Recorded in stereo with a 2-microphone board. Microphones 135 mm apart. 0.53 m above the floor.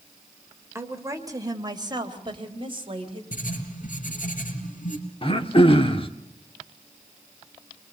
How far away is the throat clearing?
About 1.4 m.